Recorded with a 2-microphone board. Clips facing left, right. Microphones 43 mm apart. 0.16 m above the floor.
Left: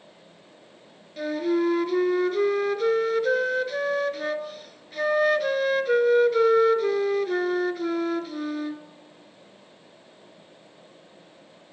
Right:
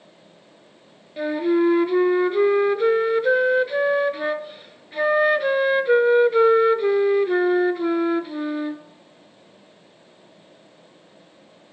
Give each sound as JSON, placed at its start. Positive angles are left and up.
{"t": 1.2, "sound": "a flute", "side_deg": -25, "distance_m": 0.9}